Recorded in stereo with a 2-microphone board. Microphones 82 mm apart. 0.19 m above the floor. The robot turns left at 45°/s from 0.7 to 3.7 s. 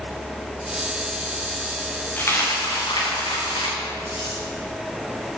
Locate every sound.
2.2 s a dropped coin: 30° left (ahead or behind), 3.5 m; by 4.4 s 85° left, 3.5 m